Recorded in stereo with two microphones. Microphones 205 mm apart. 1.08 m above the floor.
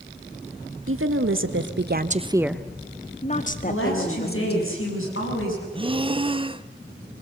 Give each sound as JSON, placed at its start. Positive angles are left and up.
{"t": 0.9, "sound": "a woman speaking", "side_deg": -85, "distance_m": 1.6}
{"t": 3.7, "sound": "a woman speaking", "side_deg": 90, "distance_m": 7.5}
{"t": 5.7, "sound": "breathing", "side_deg": -25, "distance_m": 0.6}